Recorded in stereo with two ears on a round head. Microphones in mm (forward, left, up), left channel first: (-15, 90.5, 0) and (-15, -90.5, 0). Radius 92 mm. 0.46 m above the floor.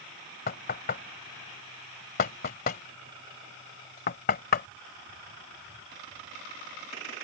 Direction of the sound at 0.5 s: 50° left (ahead or behind).